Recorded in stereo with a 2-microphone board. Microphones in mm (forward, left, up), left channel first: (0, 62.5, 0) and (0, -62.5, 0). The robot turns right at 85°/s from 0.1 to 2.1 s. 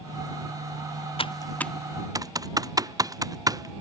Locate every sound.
1.2 s typing on a keyboard: 50° left (ahead or behind); by 3.8 s 30° right (ahead or behind)